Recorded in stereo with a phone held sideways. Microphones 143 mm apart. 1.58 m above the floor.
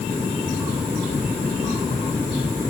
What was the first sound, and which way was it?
Only background noise.